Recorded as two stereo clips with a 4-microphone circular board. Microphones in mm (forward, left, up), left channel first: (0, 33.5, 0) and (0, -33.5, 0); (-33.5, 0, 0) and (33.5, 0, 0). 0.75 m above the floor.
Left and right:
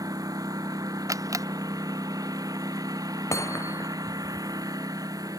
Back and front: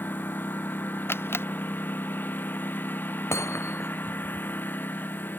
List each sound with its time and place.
0.0 s a lawn mower: 120° right
1.1 s a camera shutter: 125° right
3.3 s hammering: 130° left